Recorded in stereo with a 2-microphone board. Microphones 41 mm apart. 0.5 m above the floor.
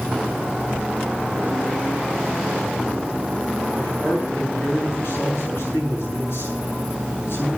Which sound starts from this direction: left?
A man speaking, at 3.7 s.